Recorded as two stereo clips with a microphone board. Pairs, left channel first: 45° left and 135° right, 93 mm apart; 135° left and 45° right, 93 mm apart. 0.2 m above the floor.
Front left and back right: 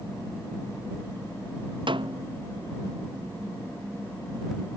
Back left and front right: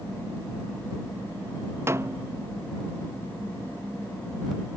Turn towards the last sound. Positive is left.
turn(degrees=-105)